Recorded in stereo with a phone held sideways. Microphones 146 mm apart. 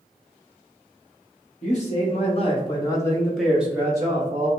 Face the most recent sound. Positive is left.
turn(degrees=-35)  # may be behind; listen again after turning